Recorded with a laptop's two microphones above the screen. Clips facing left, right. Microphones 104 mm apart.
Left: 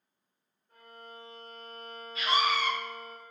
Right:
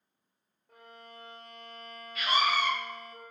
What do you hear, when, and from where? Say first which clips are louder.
0.7 s a violin: left 1 dB; 75° right (ahead or behind), 0.7 m
2.1 s a scream: even; 25° left (ahead or behind), 1.0 m